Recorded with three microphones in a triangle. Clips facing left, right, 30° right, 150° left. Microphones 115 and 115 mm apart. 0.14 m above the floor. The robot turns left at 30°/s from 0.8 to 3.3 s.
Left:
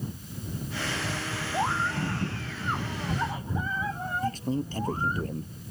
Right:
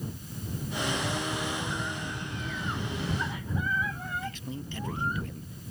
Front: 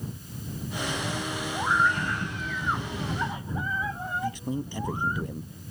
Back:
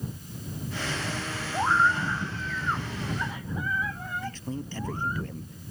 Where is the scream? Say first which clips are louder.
Left 6 dB, back 2 dB; 85° left; by 5.2 s 35° left.